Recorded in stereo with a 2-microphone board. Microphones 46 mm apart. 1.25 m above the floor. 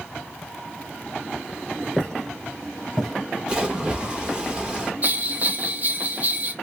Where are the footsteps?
15° left (ahead or behind), 1.2 m; by 4.1 s 10° right (ahead or behind), 2.5 m.